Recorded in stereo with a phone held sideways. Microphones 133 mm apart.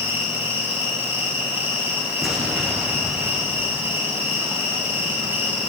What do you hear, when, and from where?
0.0 s an insect: 15° right (ahead or behind), 9.5 m
2.2 s an explosion: centre (ahead or behind), 8 m